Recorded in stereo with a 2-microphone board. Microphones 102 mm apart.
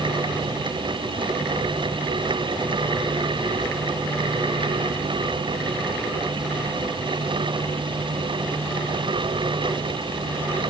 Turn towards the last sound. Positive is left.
No sound to turn to.